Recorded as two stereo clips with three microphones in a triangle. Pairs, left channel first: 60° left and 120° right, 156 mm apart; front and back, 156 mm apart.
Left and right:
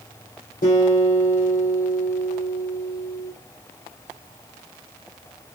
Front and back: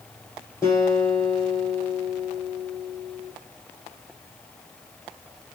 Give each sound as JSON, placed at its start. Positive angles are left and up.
{"t": 0.6, "sound": "a guitar", "azimuth_deg": 70, "distance_m": 2.5}